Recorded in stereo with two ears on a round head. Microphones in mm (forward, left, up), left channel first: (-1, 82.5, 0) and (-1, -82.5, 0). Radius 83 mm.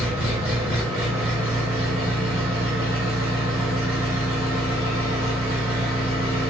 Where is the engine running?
15° right (ahead or behind), 1.5 m.